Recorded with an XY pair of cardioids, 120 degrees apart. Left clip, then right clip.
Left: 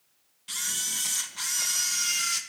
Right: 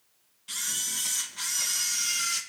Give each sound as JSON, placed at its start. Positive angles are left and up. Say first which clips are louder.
{"t": 0.5, "sound": "a camera shutter", "louder": "left 1 dB", "azimuth_deg": 20, "distance_m": 1.7}